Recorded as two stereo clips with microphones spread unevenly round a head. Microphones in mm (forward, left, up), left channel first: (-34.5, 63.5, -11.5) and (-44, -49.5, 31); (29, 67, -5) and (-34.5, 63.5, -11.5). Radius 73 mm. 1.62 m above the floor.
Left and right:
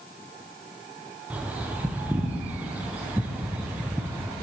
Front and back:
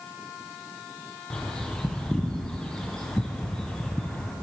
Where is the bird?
60° right, 0.5 m.